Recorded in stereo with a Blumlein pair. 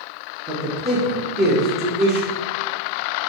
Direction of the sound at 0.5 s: 25° right.